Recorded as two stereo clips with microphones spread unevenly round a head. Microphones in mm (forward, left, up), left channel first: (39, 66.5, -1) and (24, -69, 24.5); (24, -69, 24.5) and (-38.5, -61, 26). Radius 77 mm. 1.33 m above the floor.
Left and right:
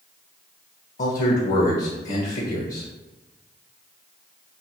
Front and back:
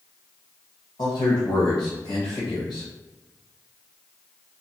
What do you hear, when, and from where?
1.0 s a man speaking: 50° left, 0.7 m